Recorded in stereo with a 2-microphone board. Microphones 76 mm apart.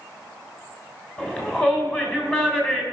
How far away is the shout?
About 3 m.